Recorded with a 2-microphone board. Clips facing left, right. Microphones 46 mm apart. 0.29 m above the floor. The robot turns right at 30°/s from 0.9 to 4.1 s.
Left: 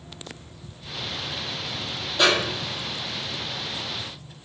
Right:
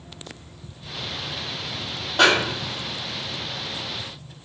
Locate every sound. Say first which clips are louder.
2.2 s a snare drum: right 3 dB; 55° right (ahead or behind), 1.4 m; by 2.9 s 60° right (ahead or behind), 1.4 m